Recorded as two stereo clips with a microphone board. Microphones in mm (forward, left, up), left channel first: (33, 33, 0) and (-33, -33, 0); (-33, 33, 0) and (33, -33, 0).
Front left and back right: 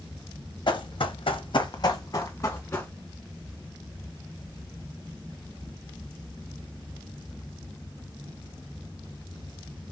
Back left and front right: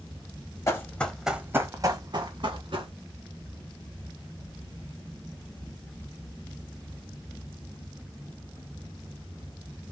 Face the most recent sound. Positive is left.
turn(degrees=-25)